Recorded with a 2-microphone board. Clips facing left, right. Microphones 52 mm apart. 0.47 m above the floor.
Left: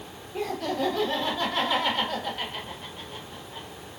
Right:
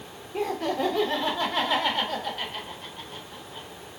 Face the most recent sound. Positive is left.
turn(degrees=15)  # may be behind; listen again after turning